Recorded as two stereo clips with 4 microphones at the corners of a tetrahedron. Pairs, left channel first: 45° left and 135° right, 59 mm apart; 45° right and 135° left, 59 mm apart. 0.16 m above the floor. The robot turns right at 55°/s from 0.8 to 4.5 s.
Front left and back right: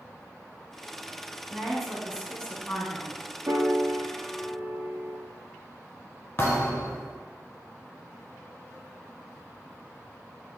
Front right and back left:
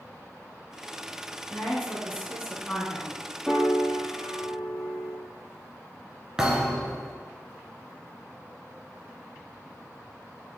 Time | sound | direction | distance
1.5 | a woman speaking | 60° right | 1.6 m
3.5 | a piano | 135° right | 0.7 m
6.4 | a thud | 65° left | 0.8 m